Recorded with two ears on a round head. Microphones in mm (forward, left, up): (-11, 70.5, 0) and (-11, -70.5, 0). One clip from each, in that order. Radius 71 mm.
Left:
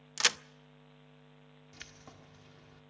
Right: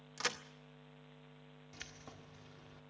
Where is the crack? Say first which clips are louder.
Left 9 dB; 55° left (ahead or behind), 0.5 m.